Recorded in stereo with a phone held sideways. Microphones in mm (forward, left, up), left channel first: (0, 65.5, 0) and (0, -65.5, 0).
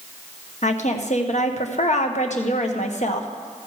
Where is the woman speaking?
65° left (ahead or behind), 1.1 m.